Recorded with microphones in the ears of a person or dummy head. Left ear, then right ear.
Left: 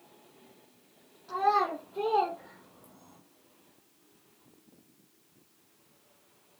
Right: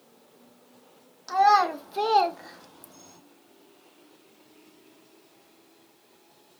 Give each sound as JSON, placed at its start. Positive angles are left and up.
{"t": 1.3, "sound": "a child speaking", "side_deg": -65, "distance_m": 1.1}